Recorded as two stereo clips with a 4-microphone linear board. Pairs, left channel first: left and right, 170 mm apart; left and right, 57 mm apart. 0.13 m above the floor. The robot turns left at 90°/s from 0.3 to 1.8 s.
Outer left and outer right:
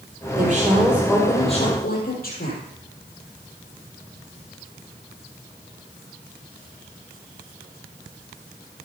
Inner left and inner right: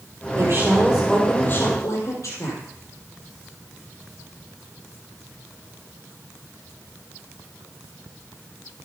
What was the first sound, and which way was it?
A woman speaking, 115° right.